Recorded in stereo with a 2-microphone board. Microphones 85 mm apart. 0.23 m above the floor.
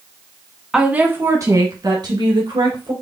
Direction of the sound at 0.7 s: 10° right (ahead or behind).